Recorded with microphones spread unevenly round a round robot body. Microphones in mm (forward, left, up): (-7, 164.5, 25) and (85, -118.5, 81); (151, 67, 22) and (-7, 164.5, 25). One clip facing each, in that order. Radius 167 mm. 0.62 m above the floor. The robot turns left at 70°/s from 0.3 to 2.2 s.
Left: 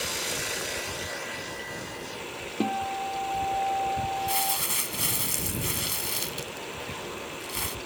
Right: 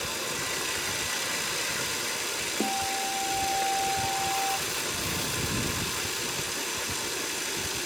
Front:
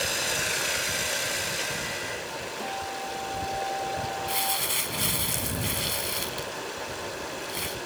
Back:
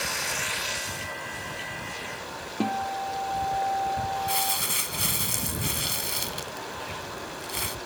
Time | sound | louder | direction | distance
0.0 | running water | left 1 dB, front 3 dB | 25° left | ?
2.6 | a guitar | left 3 dB, back 9 dB | straight behind | ?
4.3 | crumpling | right 1 dB, back 1 dB | 115° left | ?